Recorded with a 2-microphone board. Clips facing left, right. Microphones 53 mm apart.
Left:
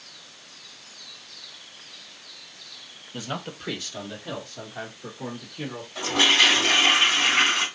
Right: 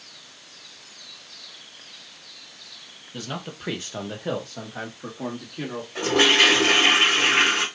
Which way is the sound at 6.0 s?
50° right (ahead or behind).